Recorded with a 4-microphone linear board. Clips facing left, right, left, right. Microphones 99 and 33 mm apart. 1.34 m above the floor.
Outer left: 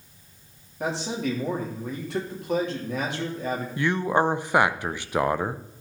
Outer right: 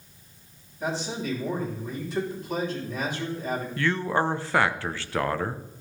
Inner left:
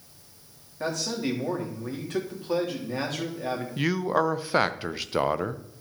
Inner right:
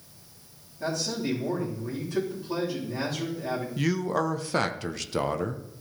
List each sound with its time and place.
0.8 s a man speaking: 75° left (ahead or behind), 3.5 m
3.8 s a man speaking: 15° left (ahead or behind), 0.5 m